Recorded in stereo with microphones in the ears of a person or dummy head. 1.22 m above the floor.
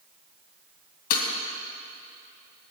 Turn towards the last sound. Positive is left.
turn(degrees=50)  # may be behind; listen again after turning